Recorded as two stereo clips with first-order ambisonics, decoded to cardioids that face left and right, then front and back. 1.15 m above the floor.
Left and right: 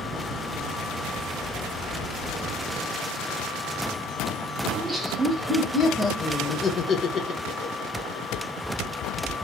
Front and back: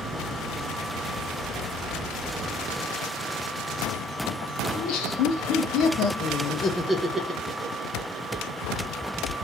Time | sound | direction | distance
4.7 | laughter | straight ahead | 1.2 m